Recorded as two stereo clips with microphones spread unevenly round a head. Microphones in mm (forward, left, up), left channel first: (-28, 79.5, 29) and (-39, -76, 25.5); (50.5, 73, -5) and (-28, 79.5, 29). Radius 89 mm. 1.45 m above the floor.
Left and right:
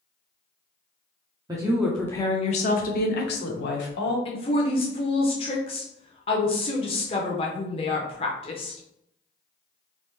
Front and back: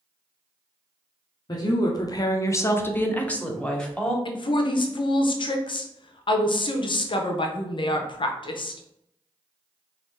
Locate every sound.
1.5 s a woman speaking: 25° right, 0.6 m; by 4.2 s 75° left, 1.3 m
4.2 s a woman speaking: 25° left, 0.6 m